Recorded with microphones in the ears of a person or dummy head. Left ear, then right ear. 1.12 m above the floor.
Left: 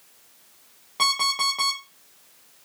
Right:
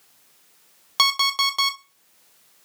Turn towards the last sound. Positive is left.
turn(degrees=-55)  # may be behind; listen again after turning